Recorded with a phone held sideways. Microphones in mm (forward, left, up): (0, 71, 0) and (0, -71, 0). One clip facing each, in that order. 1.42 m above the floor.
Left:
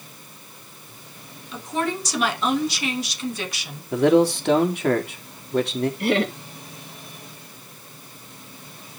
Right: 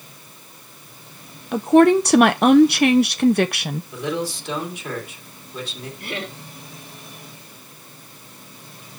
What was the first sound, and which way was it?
A woman speaking, 65° right (ahead or behind).